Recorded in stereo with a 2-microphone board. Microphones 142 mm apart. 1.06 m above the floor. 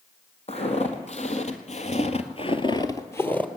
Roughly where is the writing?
I don't hear writing.